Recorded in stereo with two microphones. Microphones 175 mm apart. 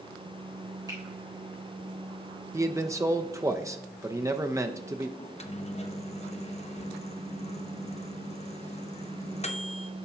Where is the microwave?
40° left (ahead or behind), 0.6 m.